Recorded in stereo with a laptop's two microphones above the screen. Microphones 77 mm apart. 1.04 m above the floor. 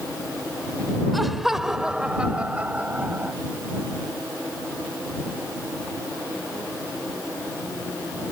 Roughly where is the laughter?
Centre.